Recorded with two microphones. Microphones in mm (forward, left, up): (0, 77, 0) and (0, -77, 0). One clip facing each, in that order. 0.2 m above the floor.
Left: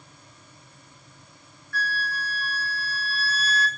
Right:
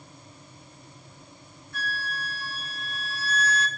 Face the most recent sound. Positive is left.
turn(degrees=-20)  # may be behind; listen again after turning